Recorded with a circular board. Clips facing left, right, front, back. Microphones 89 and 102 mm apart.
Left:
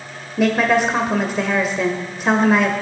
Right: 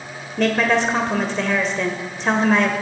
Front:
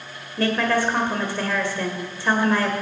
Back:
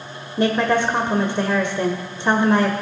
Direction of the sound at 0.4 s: 160° left.